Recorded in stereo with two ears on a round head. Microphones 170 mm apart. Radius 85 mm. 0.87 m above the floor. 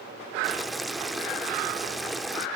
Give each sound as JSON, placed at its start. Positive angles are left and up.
{"t": 0.4, "sound": "boiling", "side_deg": 0, "distance_m": 0.6}